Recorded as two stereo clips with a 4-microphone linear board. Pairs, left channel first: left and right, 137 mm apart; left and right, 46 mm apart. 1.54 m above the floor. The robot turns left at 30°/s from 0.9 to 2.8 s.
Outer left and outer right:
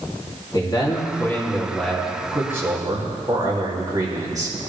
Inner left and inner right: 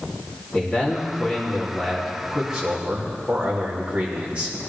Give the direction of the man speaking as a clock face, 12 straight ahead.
11 o'clock.